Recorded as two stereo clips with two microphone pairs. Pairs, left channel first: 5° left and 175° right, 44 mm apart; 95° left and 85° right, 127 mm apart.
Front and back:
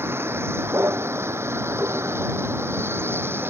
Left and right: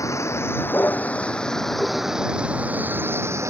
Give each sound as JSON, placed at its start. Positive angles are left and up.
{"t": 0.0, "sound": "a vehicle", "azimuth_deg": 165}